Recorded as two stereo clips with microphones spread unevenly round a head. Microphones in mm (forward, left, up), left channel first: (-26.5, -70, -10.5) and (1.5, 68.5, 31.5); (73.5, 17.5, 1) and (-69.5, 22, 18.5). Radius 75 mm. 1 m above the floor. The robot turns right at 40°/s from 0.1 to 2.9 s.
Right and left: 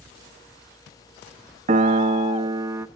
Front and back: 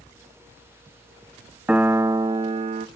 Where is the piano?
100° left, 0.5 m; by 2.9 s 145° left, 0.5 m.